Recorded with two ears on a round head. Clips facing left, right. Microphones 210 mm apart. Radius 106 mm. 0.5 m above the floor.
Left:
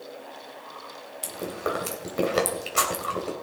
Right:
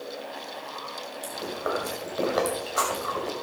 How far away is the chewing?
About 3 m.